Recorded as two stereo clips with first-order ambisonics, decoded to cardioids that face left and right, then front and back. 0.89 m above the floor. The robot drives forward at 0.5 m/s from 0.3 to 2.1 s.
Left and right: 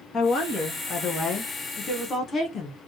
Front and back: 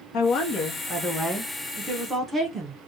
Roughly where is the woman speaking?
Ahead left.